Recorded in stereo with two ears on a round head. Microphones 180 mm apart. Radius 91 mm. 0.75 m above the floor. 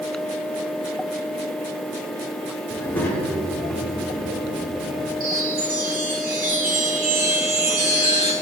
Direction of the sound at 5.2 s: 50° right (ahead or behind).